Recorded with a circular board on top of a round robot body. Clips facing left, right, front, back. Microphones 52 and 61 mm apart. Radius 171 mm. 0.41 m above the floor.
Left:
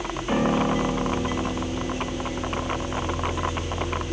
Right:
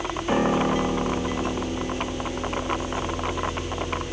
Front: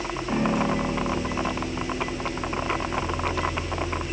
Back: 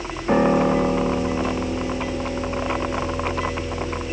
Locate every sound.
0.3 s a piano: 165° right, 2 m